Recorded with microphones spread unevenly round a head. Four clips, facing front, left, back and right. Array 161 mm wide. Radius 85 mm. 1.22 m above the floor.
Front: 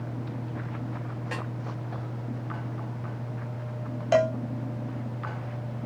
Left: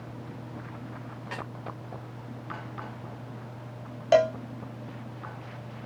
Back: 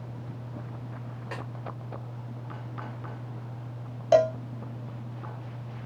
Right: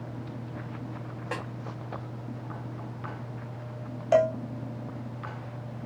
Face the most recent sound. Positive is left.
turn(degrees=105)